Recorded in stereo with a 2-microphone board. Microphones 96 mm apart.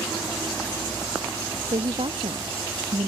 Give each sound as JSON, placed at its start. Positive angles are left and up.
{"t": 1.7, "sound": "a woman speaking", "side_deg": -65}